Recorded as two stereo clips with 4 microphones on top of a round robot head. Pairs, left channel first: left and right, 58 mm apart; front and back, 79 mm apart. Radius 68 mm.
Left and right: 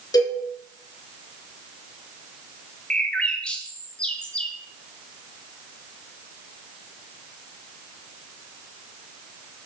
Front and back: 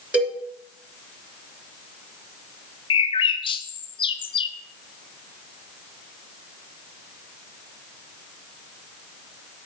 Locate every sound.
0.1 s a cowbell: 100° left, 3.5 m
2.9 s a bird: 15° left, 0.8 m